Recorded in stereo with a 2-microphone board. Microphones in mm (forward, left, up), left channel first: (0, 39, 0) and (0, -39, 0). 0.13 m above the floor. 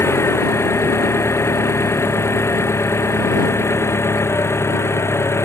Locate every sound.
0.0 s an engine running: 35° left (ahead or behind)